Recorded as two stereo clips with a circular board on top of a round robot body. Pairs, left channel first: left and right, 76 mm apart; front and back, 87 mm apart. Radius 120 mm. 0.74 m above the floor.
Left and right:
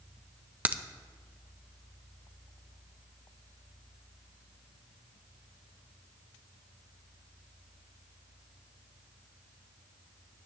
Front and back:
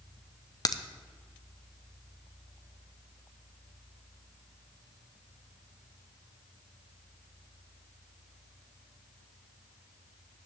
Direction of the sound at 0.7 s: 30° right.